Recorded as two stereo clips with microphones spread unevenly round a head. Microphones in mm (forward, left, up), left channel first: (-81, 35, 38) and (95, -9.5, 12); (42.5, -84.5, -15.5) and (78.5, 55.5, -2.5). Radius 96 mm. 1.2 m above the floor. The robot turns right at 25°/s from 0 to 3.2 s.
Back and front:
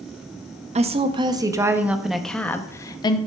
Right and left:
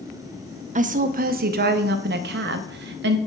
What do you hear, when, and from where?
0.8 s a woman speaking: 40° left, 0.6 m; by 3.2 s 100° left, 0.6 m